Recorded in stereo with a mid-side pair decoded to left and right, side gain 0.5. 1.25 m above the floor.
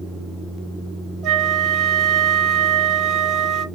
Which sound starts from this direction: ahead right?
A flute, at 1.2 s.